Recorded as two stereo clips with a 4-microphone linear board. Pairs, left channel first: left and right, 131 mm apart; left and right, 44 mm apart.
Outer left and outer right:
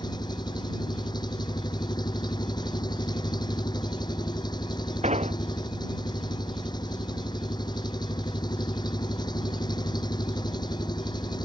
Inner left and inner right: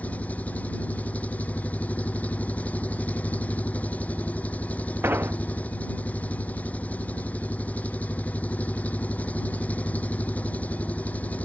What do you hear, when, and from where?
0.0 s an engine running: 30° left (ahead or behind)
5.0 s an explosion: 60° right (ahead or behind)